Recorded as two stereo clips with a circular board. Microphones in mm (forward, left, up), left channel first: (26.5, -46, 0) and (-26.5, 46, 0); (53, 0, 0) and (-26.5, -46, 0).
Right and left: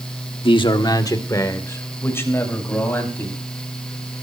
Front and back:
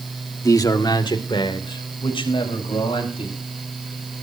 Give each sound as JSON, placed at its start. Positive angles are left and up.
{"t": 0.4, "sound": "a man speaking", "azimuth_deg": -25, "distance_m": 1.3}